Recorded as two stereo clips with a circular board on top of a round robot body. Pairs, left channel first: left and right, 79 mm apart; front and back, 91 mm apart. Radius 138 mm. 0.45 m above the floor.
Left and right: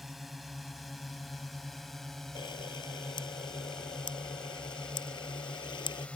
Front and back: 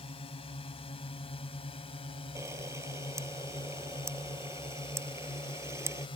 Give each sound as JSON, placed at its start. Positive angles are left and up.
{"t": 0.0, "sound": "a drone", "azimuth_deg": 0}
{"t": 2.4, "sound": "a camera shutter", "azimuth_deg": 120}